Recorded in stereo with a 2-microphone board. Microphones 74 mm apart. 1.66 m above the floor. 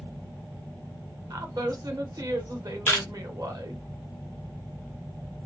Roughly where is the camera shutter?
Left.